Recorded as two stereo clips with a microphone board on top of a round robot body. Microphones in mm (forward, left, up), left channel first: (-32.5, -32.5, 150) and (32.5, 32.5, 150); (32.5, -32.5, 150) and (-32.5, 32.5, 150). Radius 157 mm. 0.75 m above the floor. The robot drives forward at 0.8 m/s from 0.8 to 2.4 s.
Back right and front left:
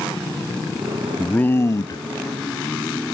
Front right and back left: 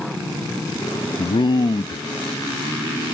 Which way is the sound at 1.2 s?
55° right.